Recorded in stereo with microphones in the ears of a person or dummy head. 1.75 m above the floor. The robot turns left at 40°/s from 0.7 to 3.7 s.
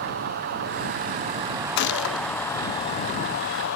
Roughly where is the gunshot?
Left.